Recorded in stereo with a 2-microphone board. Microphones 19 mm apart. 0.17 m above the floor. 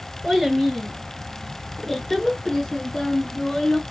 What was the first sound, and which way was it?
A child speaking, 5° left (ahead or behind).